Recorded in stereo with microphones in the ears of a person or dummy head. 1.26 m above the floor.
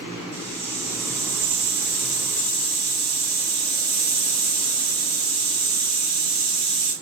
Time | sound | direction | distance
0.3 | a hiss | 55° right (ahead or behind) | 0.9 m